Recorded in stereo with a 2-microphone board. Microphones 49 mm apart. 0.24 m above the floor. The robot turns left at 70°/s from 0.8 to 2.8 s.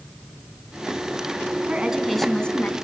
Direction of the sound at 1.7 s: 150° right.